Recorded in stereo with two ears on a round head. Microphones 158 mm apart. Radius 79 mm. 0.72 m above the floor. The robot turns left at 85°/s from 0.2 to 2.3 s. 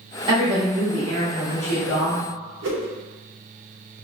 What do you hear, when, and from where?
0.3 s a woman speaking: 135° right, 1.1 m; by 2.3 s 55° left, 1.1 m
2.6 s a whoosh: 75° right (ahead or behind), 0.7 m